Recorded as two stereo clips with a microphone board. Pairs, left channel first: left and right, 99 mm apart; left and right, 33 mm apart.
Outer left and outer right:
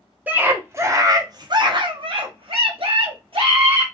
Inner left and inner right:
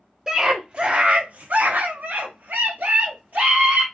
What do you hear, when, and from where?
0.3 s a scream: 15° right (ahead or behind), 1.3 m; by 3.8 s 60° right (ahead or behind), 2.0 m